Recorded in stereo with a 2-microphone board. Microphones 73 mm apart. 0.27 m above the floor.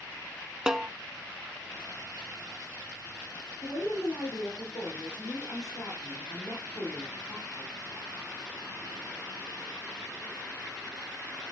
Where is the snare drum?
10° right (ahead or behind), 0.6 m.